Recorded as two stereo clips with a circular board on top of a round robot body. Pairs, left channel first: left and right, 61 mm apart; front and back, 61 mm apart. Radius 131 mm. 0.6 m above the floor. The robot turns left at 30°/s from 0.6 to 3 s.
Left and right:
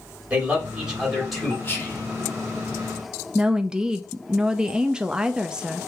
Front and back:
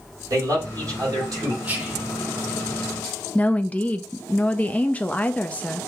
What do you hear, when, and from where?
0.3 s a man speaking: 160° right, 3 m; by 1.5 s 175° left, 3 m
1.6 s whispering: 130° left, 1.4 m; by 2.1 s 115° left, 1.4 m
3.4 s a woman speaking: 30° right, 0.6 m